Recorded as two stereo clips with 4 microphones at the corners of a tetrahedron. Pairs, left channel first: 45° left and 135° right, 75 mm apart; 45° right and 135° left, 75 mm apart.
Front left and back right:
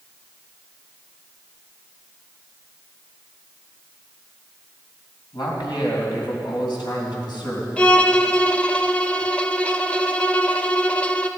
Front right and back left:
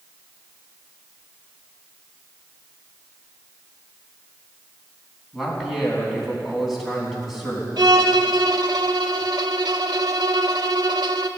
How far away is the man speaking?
About 3.5 m.